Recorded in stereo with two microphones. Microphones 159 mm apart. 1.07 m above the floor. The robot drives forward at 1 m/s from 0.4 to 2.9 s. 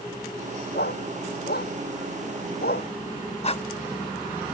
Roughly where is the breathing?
Left.